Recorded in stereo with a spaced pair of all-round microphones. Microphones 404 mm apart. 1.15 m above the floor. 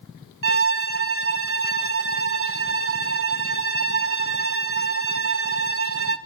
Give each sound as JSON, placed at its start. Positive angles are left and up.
{"t": 0.4, "sound": "a violin", "side_deg": -35, "distance_m": 0.6}